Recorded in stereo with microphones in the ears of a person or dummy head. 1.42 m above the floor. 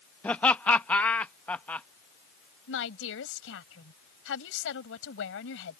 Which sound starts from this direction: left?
A woman speaking, at 2.7 s.